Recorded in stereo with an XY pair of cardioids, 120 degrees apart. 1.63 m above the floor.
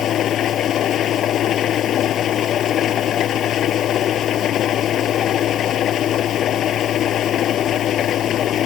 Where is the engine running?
55° left.